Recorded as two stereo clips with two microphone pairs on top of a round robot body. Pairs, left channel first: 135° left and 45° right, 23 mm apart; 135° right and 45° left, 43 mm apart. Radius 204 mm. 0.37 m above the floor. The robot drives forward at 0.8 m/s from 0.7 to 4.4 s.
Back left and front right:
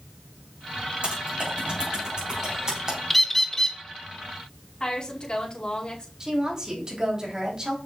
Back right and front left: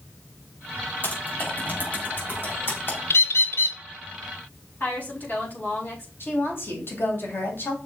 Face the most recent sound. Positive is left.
turn(degrees=-110)